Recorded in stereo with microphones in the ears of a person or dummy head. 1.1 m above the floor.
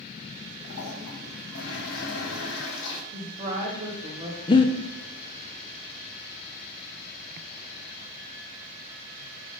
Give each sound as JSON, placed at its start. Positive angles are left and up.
{"t": 0.6, "sound": "a toilet flushing", "side_deg": 65, "distance_m": 1.2}
{"t": 3.1, "sound": "a woman speaking", "side_deg": -35, "distance_m": 1.5}
{"t": 4.5, "sound": "breathing", "side_deg": 25, "distance_m": 0.5}